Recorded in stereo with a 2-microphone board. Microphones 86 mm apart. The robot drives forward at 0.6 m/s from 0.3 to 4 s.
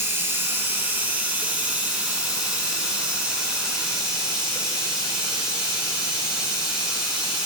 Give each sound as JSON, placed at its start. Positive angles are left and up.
{"t": 0.0, "sound": "running water", "side_deg": -25, "distance_m": 1.4}